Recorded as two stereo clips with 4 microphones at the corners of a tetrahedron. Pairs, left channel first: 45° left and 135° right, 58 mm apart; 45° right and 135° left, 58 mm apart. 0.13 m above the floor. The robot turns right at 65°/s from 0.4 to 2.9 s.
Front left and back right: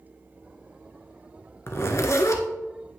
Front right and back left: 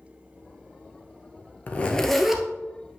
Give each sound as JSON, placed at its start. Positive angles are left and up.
{"t": 1.7, "sound": "a zipper", "azimuth_deg": 10, "distance_m": 1.1}